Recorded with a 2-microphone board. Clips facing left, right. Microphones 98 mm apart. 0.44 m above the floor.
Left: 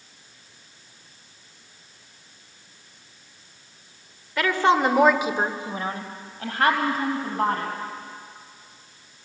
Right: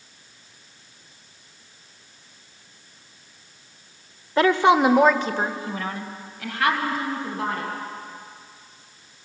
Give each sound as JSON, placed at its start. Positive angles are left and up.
{"t": 4.4, "sound": "a woman speaking", "side_deg": -30, "distance_m": 1.4}